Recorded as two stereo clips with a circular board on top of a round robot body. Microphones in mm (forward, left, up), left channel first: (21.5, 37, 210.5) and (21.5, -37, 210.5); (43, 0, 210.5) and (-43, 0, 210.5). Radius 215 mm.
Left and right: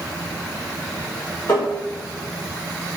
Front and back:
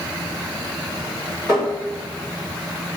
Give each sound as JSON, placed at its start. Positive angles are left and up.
{"t": 1.5, "sound": "tapping", "azimuth_deg": 115, "distance_m": 1.8}